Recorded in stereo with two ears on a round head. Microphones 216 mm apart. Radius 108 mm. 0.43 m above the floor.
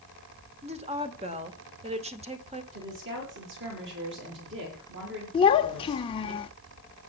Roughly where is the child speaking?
Left.